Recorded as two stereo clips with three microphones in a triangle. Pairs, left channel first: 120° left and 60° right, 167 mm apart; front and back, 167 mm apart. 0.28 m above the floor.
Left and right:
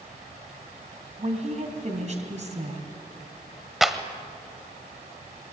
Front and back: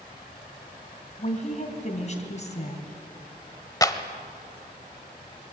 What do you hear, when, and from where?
1.2 s a woman speaking: 30° right, 2.5 m
3.8 s a clap: 25° left, 1.1 m